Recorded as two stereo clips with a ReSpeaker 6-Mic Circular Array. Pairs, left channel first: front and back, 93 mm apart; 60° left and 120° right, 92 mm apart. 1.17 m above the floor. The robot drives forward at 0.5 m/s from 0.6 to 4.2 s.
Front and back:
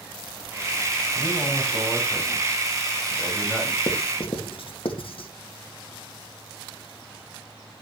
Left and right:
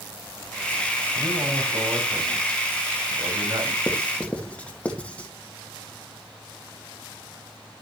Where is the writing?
15° right, 2 m.